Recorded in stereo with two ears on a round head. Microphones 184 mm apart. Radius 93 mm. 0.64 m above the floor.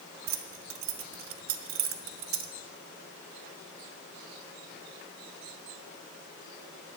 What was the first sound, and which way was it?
Keys jangling, 75° right (ahead or behind).